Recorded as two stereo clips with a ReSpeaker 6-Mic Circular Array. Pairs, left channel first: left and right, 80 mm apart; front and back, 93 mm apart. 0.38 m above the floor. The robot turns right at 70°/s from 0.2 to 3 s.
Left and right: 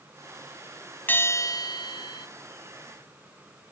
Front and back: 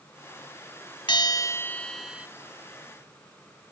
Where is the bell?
25° left; by 2.3 s 110° left.